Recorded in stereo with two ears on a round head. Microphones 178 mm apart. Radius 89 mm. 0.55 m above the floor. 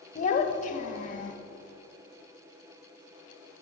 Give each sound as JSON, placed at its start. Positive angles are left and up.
{"t": 0.1, "sound": "a child speaking", "side_deg": 40, "distance_m": 1.2}